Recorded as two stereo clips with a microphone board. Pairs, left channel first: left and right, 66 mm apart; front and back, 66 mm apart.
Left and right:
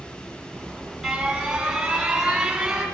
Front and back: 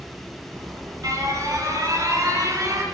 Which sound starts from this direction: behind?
An alarm, at 0.5 s.